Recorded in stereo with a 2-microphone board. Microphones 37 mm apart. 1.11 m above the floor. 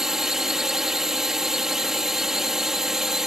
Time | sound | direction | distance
0.0 | a drone | 10° right (ahead or behind) | ?